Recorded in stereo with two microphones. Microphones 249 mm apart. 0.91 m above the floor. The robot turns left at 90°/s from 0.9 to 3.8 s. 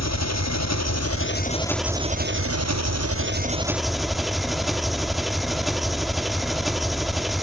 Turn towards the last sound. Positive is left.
turn(degrees=180)